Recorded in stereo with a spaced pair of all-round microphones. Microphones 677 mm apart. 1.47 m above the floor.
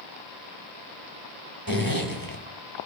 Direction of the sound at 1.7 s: 30° right (ahead or behind).